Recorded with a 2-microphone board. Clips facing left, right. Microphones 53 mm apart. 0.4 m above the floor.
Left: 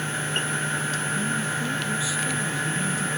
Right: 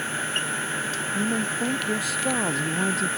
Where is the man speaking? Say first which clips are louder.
Right 1 dB; 55° right (ahead or behind); by 3.1 s 60° right (ahead or behind).